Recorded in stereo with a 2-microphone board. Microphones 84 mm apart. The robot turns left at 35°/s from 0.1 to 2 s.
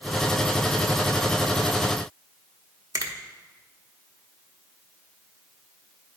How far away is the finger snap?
About 0.9 m.